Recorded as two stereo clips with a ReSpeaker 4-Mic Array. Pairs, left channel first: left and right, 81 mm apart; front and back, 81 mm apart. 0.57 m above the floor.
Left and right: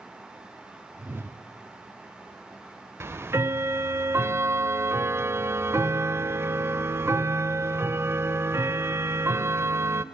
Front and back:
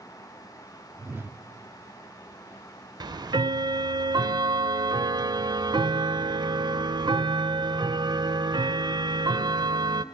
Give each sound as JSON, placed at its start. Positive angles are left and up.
{"t": 1.0, "sound": "a whoosh", "azimuth_deg": -135, "distance_m": 0.8}
{"t": 3.0, "sound": "ticking", "azimuth_deg": -150, "distance_m": 0.6}